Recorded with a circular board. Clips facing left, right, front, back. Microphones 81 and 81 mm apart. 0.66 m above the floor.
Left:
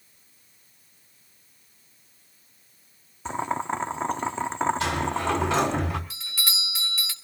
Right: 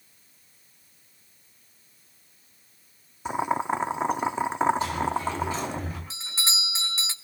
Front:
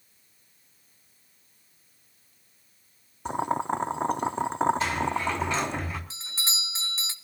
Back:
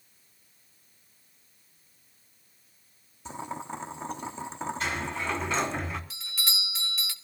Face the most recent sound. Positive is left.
turn(degrees=-40)